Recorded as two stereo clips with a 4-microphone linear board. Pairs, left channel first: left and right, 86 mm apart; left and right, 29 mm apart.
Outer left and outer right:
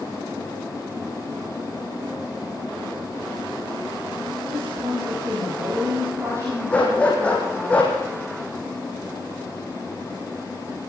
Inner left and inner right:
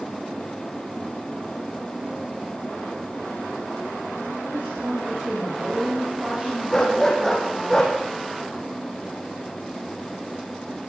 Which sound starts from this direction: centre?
A dog barking, at 6.7 s.